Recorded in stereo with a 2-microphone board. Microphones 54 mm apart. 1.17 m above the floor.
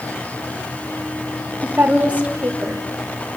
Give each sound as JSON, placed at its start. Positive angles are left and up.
{"t": 1.6, "sound": "a woman speaking", "side_deg": -30, "distance_m": 3.0}